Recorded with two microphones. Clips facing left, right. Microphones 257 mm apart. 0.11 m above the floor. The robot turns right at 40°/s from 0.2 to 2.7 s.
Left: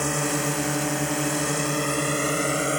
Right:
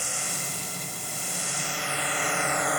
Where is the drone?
70° left (ahead or behind); by 2.8 s 30° left (ahead or behind).